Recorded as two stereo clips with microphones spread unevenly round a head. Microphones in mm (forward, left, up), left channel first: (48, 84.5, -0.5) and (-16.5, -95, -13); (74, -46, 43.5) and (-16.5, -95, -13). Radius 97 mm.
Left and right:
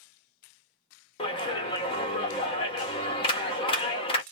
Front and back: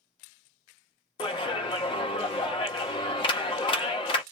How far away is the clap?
About 1.0 m.